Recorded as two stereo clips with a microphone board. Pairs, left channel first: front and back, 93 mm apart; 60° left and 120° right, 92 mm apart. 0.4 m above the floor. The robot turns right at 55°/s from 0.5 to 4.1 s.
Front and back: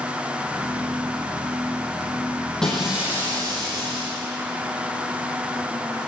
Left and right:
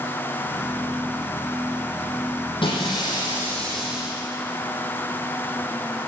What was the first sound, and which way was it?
Breaking glass, 85° left.